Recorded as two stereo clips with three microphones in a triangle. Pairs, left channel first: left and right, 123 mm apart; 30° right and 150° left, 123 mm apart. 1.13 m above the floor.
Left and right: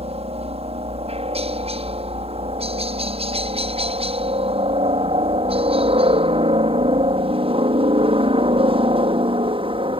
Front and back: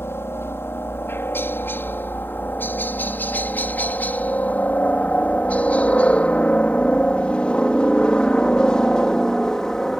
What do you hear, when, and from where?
0.0 s a helicopter: 95° right; by 10.0 s 115° right